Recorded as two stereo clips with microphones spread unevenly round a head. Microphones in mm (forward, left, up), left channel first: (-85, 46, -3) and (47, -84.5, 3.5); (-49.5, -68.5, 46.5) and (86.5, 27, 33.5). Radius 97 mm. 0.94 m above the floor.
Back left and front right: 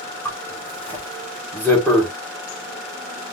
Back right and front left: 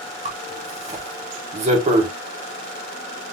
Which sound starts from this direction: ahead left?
A zipper, at 0.2 s.